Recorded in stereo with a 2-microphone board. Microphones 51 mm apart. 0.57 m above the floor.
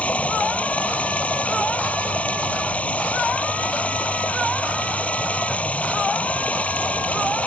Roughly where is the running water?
Left.